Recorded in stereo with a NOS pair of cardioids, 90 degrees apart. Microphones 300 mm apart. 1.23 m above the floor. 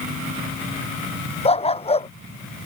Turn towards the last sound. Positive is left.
turn(degrees=20)